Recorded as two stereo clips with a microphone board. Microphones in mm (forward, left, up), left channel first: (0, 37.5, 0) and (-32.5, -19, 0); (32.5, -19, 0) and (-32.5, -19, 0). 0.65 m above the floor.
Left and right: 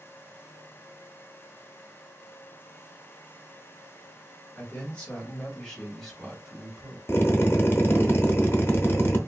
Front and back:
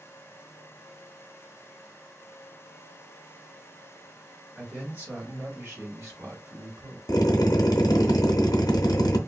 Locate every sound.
4.5 s a man speaking: 115° left, 1.4 m; by 7.0 s 160° left, 2.5 m
7.1 s a drill: 5° left, 0.6 m